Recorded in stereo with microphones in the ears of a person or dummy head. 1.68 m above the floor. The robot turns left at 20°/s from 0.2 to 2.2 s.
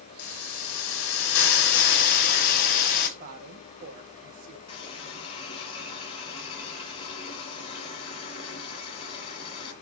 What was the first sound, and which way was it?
A hiss, 90° left.